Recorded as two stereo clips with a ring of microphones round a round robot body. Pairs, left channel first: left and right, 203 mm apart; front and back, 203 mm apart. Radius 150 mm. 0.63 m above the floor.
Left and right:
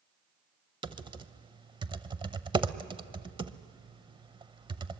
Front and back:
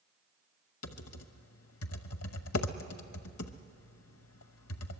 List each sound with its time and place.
0.8 s typing on a keyboard: 25° right, 0.8 m